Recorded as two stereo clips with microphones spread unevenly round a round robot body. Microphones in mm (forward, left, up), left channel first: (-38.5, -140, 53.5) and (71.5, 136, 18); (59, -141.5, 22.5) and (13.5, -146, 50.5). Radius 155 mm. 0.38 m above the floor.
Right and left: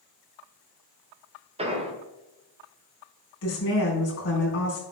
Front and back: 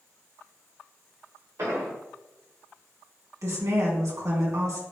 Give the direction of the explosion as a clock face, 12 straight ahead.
8 o'clock.